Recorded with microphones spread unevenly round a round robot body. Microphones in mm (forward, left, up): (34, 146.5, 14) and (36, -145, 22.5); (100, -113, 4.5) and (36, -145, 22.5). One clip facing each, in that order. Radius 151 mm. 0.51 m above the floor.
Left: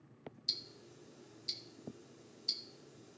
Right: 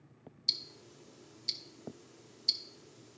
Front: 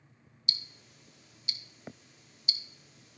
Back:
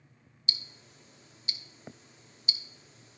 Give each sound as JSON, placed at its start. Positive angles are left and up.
{"t": 0.5, "sound": "ticking", "azimuth_deg": -155, "distance_m": 0.6}